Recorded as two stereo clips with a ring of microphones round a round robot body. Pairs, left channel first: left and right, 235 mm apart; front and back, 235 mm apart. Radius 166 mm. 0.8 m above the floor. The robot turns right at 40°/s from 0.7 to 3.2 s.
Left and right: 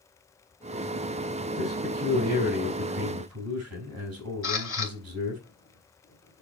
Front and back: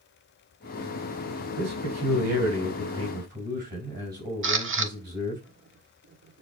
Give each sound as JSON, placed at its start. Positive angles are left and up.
{"t": 1.6, "sound": "a man speaking", "azimuth_deg": 175, "distance_m": 4.5}
{"t": 4.4, "sound": "a camera shutter", "azimuth_deg": 145, "distance_m": 1.4}